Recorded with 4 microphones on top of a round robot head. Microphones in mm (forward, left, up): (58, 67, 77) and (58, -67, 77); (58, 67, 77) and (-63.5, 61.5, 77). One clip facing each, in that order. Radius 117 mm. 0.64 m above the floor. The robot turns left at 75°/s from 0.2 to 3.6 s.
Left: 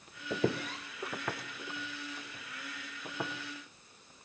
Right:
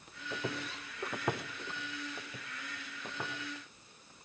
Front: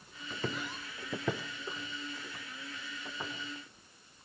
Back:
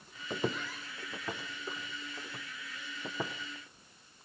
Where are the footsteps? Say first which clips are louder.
Left 7 dB, back 3 dB; 135° left, 0.8 m; by 3.3 s 165° left, 2.5 m.